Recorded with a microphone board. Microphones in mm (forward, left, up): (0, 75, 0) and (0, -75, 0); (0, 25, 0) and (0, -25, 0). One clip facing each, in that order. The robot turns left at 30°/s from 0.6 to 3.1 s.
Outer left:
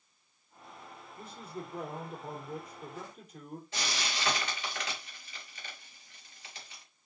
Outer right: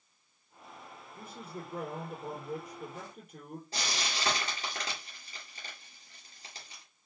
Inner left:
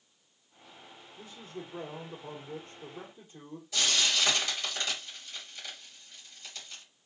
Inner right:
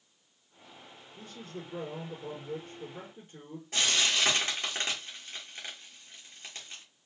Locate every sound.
1.1 s a man speaking: 55° right, 3.5 m; by 3.6 s 115° right, 3.5 m
3.7 s frying: 35° right (ahead or behind), 2.5 m